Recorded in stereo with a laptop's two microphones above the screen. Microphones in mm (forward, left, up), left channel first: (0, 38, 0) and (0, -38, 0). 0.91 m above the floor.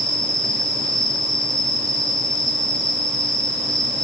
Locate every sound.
0.0 s an insect: 60° right (ahead or behind), 4 m